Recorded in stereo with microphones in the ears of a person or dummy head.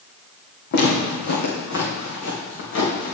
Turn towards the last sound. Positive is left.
turn(degrees=60)  # may be behind; listen again after turning